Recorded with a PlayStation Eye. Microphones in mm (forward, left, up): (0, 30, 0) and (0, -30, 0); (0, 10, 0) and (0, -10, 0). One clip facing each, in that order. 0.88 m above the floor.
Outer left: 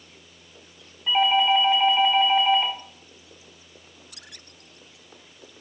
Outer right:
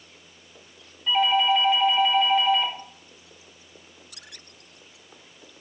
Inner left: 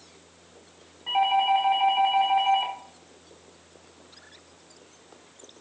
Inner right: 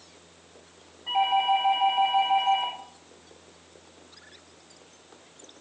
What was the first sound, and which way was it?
A doorbell, 15° left (ahead or behind).